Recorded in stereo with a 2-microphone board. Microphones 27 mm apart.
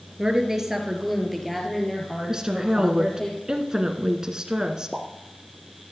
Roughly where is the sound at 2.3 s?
Right.